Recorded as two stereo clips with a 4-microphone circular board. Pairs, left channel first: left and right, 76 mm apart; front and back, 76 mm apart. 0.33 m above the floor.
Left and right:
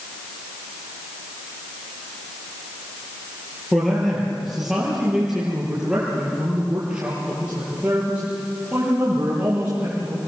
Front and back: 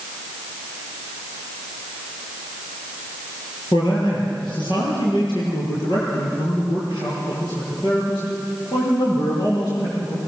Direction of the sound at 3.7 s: 5° left.